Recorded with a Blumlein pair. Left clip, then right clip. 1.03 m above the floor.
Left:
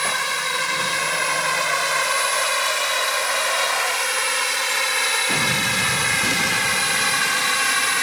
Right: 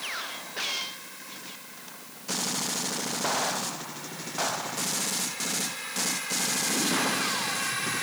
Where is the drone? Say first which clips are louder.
Left 13 dB; 40° left; by 8.0 s 60° left.